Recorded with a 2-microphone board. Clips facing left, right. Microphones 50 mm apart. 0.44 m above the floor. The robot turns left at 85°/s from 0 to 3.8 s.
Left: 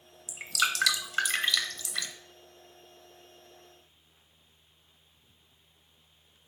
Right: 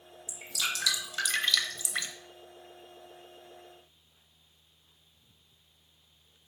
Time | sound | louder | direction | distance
0.3 | dripping | left 5 dB | 65° left (ahead or behind) | 0.6 m